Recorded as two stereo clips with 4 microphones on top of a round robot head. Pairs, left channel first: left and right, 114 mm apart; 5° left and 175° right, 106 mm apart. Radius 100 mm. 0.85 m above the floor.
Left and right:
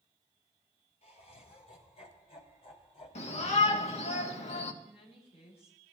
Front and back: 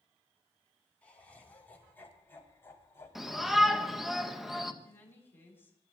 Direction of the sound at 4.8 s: 70° left.